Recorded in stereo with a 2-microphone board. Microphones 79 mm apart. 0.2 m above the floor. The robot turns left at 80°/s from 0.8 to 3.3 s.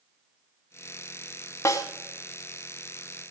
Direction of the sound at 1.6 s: 35° left (ahead or behind).